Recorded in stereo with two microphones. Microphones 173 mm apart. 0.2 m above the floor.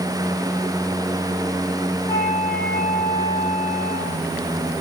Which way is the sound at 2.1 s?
30° left (ahead or behind).